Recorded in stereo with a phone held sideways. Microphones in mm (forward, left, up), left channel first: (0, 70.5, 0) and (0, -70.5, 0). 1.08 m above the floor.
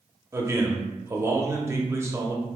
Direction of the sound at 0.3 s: 20° right (ahead or behind).